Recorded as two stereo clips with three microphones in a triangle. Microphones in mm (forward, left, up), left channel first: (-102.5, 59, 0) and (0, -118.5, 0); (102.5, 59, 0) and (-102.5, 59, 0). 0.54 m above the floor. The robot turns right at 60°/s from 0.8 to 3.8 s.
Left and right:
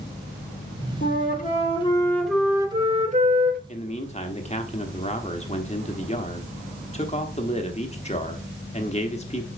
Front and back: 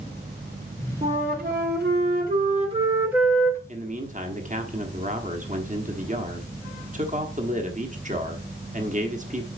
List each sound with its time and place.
1.0 s a flute: 130° left, 1.4 m; by 3.6 s 75° right, 1.4 m
3.7 s a man speaking: 150° left, 1.1 m; by 9.5 s 155° left, 1.1 m